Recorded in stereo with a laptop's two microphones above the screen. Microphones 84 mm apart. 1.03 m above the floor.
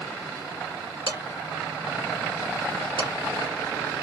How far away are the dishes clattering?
About 1.9 m.